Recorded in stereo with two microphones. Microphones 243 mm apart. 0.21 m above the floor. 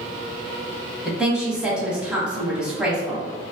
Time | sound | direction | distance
1.1 | a woman speaking | 5° right (ahead or behind) | 1.0 m